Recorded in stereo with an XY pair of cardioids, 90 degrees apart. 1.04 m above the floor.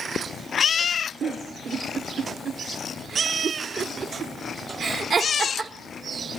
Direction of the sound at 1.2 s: 65° right.